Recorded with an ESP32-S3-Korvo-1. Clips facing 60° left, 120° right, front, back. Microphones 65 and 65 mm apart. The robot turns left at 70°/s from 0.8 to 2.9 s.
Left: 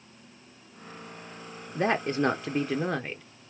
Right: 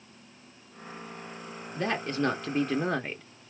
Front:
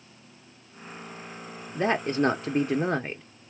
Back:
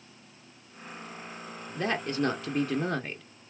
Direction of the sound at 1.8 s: 40° left.